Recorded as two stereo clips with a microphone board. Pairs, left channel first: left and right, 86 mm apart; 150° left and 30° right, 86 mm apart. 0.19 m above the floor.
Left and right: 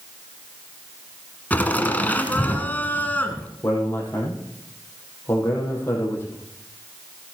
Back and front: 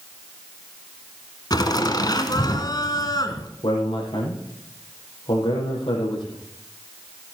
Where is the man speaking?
155° left, 5.5 m.